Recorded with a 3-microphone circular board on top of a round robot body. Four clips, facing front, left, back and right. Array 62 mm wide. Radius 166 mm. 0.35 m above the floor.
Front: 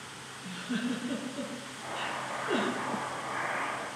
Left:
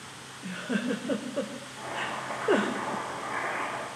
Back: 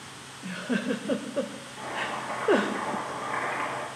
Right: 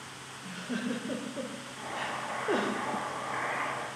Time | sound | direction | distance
0.4 | a giggle | 150° left | 1.5 m
1.8 | boiling | 175° right | 7.5 m